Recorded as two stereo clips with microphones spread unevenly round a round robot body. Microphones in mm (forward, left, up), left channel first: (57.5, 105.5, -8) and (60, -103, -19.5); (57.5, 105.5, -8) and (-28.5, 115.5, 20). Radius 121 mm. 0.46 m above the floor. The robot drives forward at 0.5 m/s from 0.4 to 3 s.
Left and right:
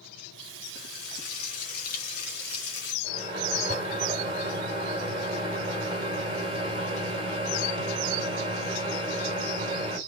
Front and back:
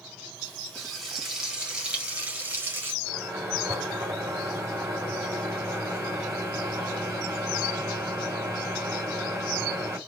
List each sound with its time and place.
0.8 s frying: 80° left, 2.0 m; by 2.9 s 110° left, 2 m
3.0 s a microwave: 135° right, 2.5 m